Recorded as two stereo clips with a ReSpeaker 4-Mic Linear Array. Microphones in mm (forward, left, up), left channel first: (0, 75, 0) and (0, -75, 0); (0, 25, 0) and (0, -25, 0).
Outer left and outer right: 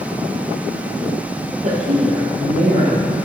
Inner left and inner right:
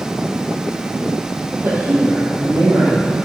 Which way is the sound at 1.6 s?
50° right (ahead or behind).